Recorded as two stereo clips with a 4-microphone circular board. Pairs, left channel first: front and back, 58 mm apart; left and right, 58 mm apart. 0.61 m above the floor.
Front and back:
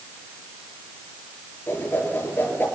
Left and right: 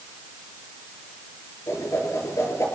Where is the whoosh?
55° left, 8 m.